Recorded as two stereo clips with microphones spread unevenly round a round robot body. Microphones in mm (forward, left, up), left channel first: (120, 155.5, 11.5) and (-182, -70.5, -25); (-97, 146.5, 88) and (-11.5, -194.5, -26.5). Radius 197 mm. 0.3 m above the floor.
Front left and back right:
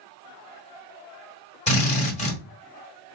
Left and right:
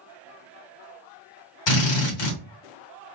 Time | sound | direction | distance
1.7 | a drill | 105° left | 1.5 m